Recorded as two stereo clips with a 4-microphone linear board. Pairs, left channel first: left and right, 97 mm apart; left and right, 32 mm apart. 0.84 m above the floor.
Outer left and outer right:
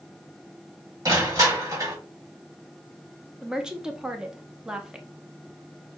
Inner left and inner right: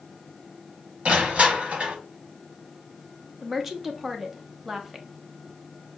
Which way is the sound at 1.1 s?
35° right (ahead or behind).